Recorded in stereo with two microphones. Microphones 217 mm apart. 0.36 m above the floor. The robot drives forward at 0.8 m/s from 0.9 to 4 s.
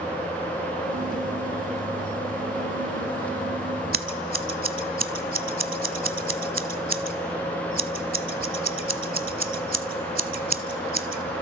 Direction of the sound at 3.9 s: 50° right (ahead or behind).